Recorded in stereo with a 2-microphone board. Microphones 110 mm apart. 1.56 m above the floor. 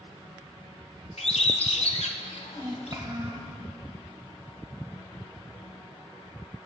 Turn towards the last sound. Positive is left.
turn(degrees=-35)  # may be behind; listen again after turning